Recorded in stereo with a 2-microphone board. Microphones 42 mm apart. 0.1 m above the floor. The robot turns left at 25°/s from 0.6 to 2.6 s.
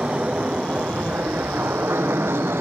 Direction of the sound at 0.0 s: 30° right (ahead or behind).